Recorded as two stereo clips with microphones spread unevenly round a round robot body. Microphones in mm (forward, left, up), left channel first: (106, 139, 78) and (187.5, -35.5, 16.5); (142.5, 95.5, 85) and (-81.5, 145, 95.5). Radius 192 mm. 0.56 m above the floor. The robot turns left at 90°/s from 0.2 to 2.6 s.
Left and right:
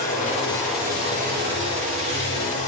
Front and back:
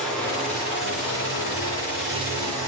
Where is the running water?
75° left, 7 m; by 2.7 s 145° right, 7 m.